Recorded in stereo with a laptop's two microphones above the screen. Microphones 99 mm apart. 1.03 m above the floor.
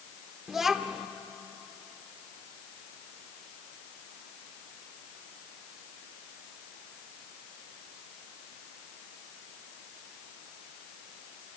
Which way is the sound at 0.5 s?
5° right (ahead or behind).